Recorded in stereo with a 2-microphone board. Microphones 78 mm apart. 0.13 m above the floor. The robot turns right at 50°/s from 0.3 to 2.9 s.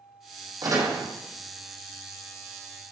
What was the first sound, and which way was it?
A door slam, 55° right (ahead or behind).